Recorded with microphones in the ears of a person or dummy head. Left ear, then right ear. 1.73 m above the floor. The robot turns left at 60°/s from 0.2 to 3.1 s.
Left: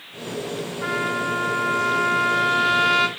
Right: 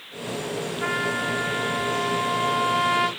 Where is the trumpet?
155° right, 6.5 m; by 3.1 s 70° left, 6.5 m.